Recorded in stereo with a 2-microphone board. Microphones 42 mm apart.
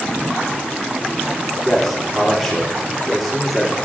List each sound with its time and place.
1.6 s a man speaking: 10° left (ahead or behind), 4.5 m